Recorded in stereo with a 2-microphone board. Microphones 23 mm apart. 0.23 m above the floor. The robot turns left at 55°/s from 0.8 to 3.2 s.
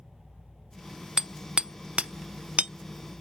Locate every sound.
1.2 s hammering: 25° right (ahead or behind), 0.7 m; by 2.7 s 60° right (ahead or behind), 0.7 m